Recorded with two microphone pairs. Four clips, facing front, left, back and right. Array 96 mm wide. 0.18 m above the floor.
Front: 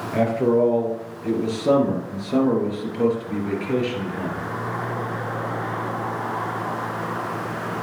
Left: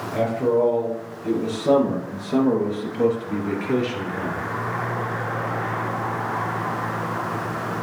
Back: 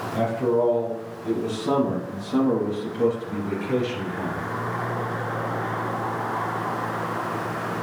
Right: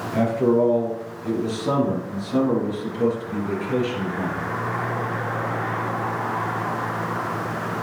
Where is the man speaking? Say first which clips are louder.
Right 1 dB, front 3 dB; straight ahead, 3.5 m; by 4.5 s 55° left, 3.5 m.